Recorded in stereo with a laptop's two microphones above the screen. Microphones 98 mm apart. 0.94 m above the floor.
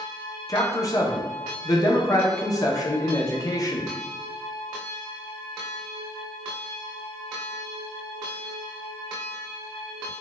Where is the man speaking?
35° left (ahead or behind), 0.5 m.